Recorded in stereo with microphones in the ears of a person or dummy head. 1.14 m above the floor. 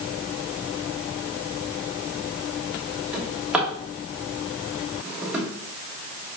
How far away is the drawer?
About 1.2 m.